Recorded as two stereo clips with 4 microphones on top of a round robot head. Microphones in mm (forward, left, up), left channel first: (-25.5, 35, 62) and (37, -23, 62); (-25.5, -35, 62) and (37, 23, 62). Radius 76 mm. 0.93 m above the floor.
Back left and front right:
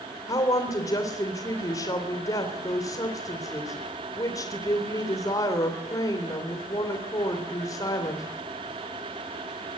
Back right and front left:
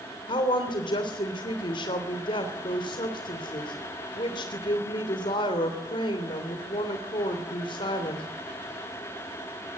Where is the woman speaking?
170° right, 3 m.